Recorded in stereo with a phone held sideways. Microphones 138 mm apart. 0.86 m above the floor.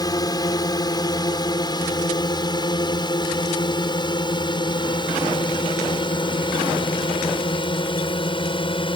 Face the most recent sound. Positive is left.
turn(degrees=35)  # may be behind; listen again after turning